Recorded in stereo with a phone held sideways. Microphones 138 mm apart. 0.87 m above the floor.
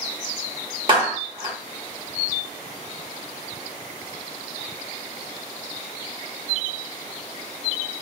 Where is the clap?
35° right (ahead or behind), 1.2 m.